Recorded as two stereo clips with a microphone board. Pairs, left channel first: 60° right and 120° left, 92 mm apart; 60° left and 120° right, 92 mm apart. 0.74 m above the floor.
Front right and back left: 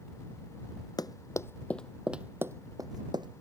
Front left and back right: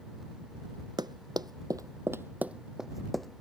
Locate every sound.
1.0 s running footsteps: 95° right; by 3.4 s 145° left